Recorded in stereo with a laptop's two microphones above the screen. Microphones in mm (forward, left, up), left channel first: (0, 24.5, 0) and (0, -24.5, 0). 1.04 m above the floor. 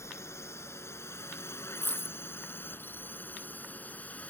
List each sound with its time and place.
0.0 s a drone: 75° left (ahead or behind); by 4.3 s 35° left (ahead or behind)
1.8 s a dropped coin: 45° left (ahead or behind)